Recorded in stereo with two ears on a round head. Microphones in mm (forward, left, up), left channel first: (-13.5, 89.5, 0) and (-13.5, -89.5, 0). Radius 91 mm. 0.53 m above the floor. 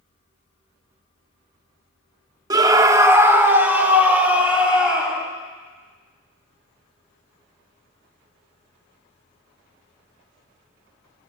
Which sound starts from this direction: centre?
A scream, at 2.5 s.